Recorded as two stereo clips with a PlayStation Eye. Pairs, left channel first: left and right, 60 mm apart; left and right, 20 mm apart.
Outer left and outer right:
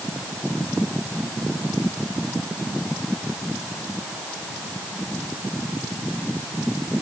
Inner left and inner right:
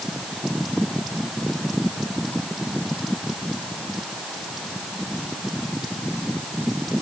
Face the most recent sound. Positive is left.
No sound to turn to.